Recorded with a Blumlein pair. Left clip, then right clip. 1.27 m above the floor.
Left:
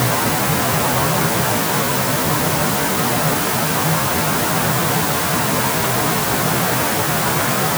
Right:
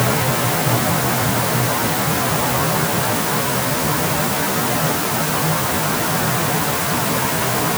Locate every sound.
Only background noise.